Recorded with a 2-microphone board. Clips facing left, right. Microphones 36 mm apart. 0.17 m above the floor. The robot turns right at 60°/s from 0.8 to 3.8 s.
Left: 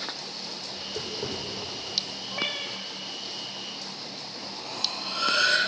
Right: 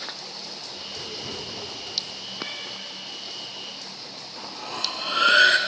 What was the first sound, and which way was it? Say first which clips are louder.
Tapping: left 3 dB; 30° left (ahead or behind).